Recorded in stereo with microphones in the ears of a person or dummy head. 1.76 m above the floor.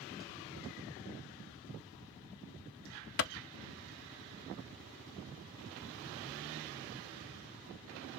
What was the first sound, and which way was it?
A clap, 50° left (ahead or behind).